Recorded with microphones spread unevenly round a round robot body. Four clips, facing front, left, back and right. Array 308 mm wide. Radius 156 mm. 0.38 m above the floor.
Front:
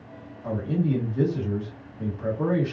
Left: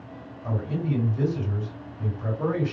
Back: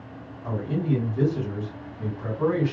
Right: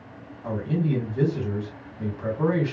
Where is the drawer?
No drawer in this recording.